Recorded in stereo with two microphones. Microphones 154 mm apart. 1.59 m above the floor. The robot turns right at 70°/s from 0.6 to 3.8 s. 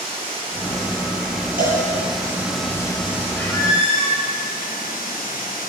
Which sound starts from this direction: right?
A cowbell, at 1.6 s.